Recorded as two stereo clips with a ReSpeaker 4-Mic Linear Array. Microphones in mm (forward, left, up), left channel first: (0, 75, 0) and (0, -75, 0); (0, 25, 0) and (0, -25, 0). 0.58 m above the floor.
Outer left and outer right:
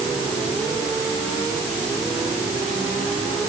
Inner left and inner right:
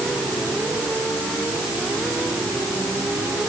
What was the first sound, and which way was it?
Only background noise.